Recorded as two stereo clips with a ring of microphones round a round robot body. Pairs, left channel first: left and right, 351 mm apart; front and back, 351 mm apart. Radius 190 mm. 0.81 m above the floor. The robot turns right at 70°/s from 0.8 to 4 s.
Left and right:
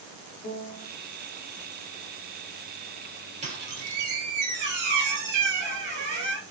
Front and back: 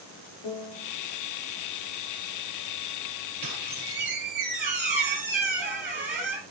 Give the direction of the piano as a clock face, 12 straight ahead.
12 o'clock.